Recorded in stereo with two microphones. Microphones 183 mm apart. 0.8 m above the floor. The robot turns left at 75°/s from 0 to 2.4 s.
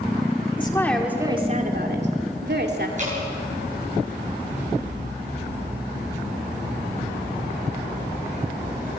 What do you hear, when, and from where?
0.6 s a woman speaking: 30° left, 2.5 m; by 2.9 s 105° right, 2.5 m
3.0 s dripping: 40° right (ahead or behind), 9.5 m